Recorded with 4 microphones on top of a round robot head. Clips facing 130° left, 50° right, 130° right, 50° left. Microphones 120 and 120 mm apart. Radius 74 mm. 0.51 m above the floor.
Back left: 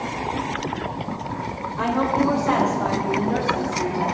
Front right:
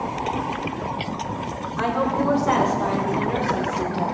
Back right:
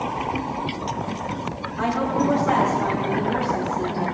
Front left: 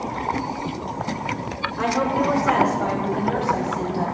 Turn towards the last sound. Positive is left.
turn(degrees=25)